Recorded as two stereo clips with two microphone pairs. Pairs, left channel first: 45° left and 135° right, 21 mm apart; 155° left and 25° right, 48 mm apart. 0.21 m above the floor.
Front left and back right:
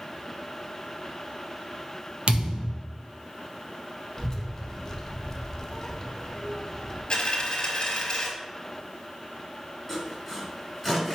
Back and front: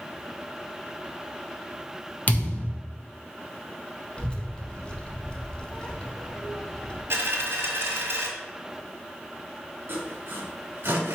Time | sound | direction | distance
2.3 | a thud | 150° right | 0.8 m
4.2 | a child speaking | 100° left | 0.7 m
7.1 | a dropped coin | 10° left | 1.0 m
9.9 | sawing | 45° right | 1.4 m